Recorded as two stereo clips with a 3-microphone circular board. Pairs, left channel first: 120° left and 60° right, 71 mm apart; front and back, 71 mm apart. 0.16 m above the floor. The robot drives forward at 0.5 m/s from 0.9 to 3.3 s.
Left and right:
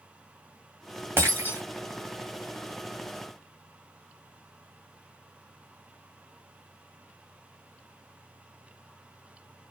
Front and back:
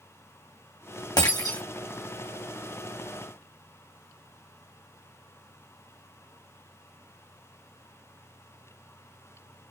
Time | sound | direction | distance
1.2 | breaking glass | straight ahead | 2 m